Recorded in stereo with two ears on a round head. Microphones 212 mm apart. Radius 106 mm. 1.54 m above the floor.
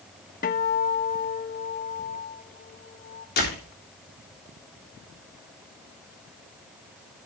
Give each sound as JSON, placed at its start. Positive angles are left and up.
{"t": 0.4, "sound": "a guitar", "side_deg": 40, "distance_m": 1.3}
{"t": 3.4, "sound": "a door slam", "side_deg": 45, "distance_m": 3.5}